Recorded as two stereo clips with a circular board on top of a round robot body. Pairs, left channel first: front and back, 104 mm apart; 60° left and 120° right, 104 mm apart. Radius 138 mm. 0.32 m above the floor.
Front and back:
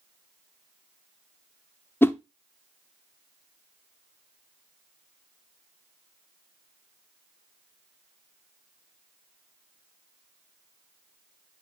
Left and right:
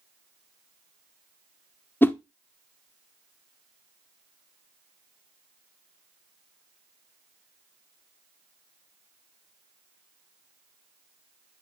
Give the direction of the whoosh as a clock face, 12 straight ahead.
11 o'clock.